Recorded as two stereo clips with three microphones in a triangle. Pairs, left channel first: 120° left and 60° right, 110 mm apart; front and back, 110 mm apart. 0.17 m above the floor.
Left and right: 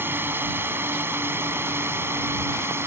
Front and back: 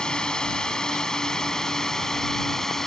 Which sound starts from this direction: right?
A drone, at 0.0 s.